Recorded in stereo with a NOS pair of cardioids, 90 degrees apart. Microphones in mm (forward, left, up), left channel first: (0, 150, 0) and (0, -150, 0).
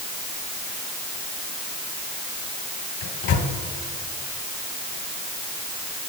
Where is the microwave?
60° left, 3 m.